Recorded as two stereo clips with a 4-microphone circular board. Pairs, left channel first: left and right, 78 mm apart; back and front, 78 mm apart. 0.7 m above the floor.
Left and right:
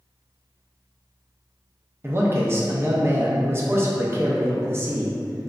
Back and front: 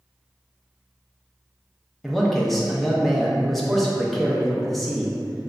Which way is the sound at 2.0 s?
95° right.